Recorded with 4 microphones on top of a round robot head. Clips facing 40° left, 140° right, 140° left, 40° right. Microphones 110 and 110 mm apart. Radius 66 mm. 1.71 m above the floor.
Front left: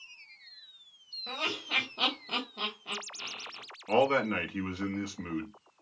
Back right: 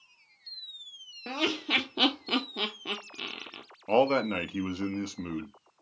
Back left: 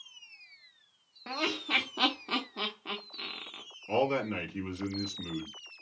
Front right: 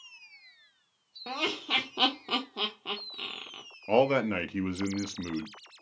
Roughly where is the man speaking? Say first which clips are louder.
Back right 2 dB, front right 5 dB; right.